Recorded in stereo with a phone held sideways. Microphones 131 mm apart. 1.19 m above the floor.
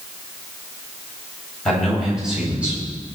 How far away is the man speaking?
About 7 m.